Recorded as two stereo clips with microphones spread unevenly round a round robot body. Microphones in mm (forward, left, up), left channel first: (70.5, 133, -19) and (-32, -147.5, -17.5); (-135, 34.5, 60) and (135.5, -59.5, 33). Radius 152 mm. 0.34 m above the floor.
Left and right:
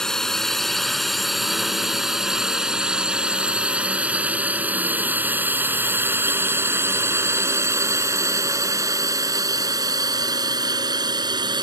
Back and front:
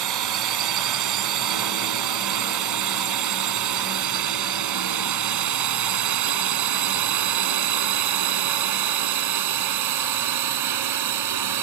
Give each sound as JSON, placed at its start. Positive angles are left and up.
{"t": 0.0, "sound": "a drone", "azimuth_deg": -20}